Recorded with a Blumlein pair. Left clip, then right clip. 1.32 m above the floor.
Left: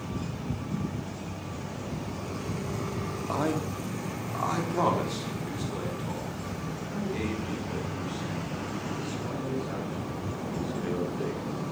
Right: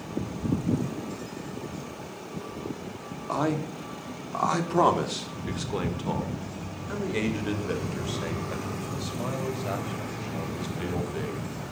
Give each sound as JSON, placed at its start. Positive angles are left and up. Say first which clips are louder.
{"t": 3.3, "sound": "a man speaking", "louder": "right 2 dB", "azimuth_deg": -5, "distance_m": 3.0}